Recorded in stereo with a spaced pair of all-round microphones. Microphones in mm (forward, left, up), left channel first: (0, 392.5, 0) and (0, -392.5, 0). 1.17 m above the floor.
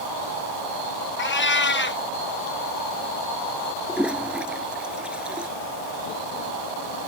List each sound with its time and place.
1.2 s a cat meowing: 15° left (ahead or behind)
3.9 s a toilet flushing: centre (ahead or behind)